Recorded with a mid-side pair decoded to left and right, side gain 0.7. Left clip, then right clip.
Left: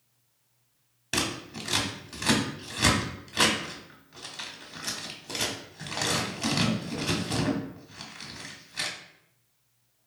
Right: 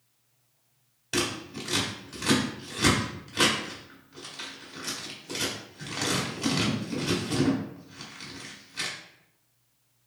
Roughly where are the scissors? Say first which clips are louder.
Even; ahead.